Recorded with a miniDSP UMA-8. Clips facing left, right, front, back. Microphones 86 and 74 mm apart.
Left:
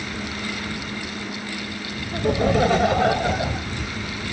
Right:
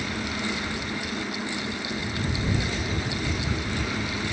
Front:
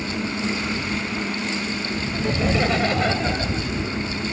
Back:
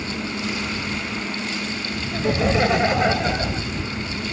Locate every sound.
2.1 s laughter: 110° left; by 3.7 s 100° left